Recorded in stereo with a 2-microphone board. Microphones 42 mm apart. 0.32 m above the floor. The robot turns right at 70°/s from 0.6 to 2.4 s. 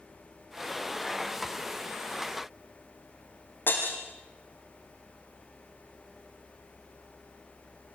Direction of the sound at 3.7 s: 50° left (ahead or behind).